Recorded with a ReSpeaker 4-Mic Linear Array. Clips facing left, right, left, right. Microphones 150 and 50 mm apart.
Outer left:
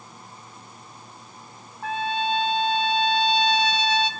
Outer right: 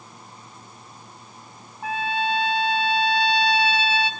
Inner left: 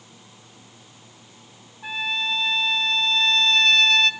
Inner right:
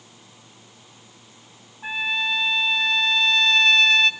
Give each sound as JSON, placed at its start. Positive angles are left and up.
{"t": 1.8, "sound": "a trumpet", "side_deg": -10, "distance_m": 1.3}